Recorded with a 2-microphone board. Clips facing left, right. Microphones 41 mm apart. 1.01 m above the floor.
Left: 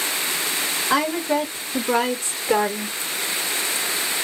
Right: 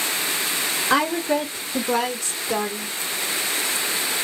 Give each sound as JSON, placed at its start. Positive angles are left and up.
{"t": 0.9, "sound": "a woman speaking", "side_deg": -15, "distance_m": 1.2}